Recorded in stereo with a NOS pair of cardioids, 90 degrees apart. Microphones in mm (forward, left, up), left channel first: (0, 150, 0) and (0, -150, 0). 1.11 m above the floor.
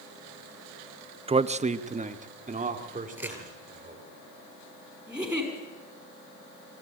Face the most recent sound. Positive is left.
turn(degrees=-5)